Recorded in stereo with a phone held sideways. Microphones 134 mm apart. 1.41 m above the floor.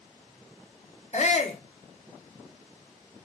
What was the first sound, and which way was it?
A shout, 60° left (ahead or behind).